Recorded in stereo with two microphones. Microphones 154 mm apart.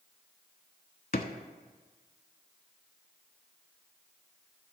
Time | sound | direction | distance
1.1 | a drawer | 70° left (ahead or behind) | 0.5 m